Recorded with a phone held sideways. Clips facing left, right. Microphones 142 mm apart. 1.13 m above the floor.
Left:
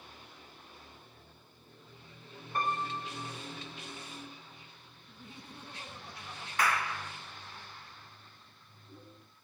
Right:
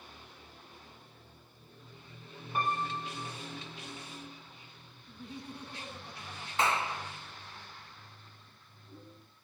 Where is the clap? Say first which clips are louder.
Right 1 dB; 25° right (ahead or behind), 0.5 m.